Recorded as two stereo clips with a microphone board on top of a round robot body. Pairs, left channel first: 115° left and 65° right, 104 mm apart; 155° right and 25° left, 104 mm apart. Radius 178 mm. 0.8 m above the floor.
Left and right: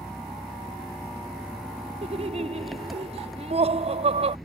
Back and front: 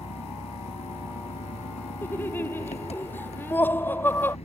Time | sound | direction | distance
0.0 | an engine running | 155° right | ?
2.0 | laughter | 85° right | ?